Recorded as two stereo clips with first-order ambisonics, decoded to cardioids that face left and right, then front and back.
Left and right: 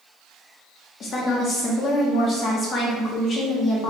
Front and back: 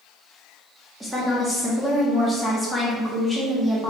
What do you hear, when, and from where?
1.0 s a woman speaking: 95° left, 0.8 m